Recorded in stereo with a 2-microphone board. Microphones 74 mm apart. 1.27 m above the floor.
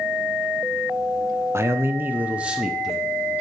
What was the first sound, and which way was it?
A man speaking, 35° right (ahead or behind).